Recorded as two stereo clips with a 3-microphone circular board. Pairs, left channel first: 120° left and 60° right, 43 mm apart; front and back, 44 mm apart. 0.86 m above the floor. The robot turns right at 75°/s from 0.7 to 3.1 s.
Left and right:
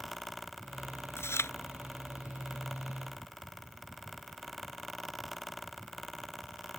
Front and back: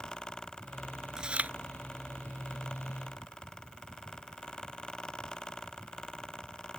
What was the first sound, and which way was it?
Chewing, 105° left.